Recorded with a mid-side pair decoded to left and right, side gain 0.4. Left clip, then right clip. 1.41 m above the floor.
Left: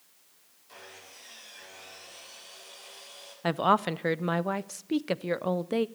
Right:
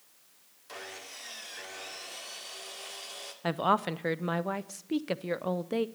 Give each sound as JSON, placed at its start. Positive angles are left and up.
{"t": 0.7, "sound": "sawing", "azimuth_deg": -65, "distance_m": 2.0}
{"t": 3.4, "sound": "a woman speaking", "azimuth_deg": 25, "distance_m": 0.5}